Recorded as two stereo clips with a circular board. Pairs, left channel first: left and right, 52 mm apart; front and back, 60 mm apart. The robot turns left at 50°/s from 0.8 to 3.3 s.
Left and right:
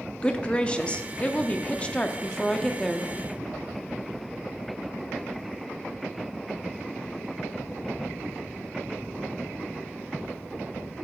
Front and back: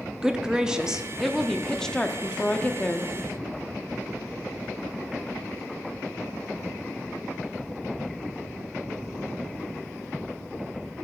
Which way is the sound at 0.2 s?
120° left.